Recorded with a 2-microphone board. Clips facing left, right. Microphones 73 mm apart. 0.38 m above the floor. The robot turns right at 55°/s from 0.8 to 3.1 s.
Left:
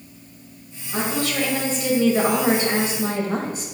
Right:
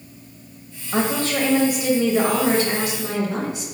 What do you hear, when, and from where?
0.9 s a woman speaking: 65° right, 1.8 m; by 3.7 s 55° left, 1.8 m